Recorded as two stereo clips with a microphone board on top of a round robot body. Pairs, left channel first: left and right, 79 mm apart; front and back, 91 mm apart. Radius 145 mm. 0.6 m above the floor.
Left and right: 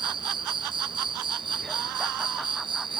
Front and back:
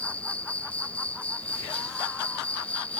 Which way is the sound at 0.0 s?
75° right.